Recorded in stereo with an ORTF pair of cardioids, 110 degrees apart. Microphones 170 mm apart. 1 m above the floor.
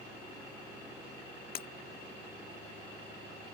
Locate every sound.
1.6 s breaking glass: 60° left